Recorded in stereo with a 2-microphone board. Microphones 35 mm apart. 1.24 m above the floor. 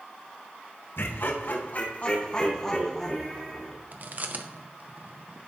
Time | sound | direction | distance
1.0 | laughter | 75° left (ahead or behind) | 1.3 m
3.9 | chewing | 50° right (ahead or behind) | 0.7 m